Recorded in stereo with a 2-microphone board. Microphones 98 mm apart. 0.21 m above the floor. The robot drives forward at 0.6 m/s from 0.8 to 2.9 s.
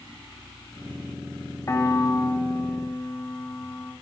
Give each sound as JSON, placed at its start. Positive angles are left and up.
{"t": 1.7, "sound": "a piano", "side_deg": 30, "distance_m": 0.6}